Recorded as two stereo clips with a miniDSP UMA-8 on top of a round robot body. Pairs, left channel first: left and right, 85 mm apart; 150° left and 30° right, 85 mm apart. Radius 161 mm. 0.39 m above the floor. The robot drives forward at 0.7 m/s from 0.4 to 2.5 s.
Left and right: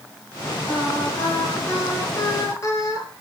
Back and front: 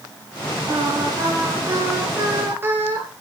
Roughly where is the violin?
No violin in this recording.